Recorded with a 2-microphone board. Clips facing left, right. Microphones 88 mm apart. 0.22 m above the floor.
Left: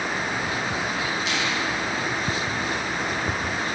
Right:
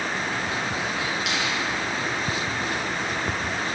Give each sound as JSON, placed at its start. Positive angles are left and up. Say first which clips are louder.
{"t": 1.3, "sound": "a finger snap", "louder": "left 1 dB", "side_deg": -80, "distance_m": 7.0}